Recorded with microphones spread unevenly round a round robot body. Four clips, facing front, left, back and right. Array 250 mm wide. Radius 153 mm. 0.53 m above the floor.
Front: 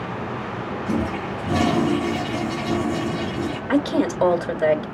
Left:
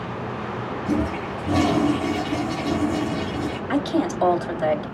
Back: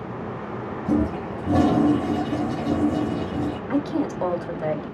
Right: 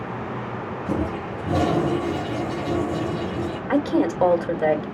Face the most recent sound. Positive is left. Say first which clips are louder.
# right 3 dB, front 6 dB
turn(degrees=-35)